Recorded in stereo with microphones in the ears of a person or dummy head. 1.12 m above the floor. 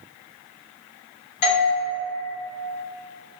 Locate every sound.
1.4 s a doorbell: 30° left (ahead or behind), 1.2 m